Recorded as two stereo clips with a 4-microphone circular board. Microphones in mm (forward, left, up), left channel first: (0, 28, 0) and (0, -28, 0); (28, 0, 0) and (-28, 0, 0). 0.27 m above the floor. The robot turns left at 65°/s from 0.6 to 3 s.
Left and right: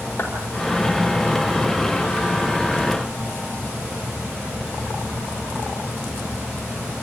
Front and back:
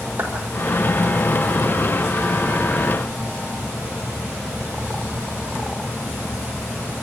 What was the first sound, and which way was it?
A clap, 145° left.